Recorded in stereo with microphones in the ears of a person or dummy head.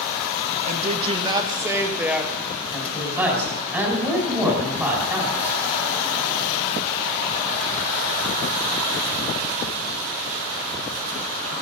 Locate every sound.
0.7 s a woman speaking: 40° right (ahead or behind), 1.6 m; by 2.4 s 5° right (ahead or behind), 2.5 m
2.7 s a woman speaking: 10° right (ahead or behind), 5.5 m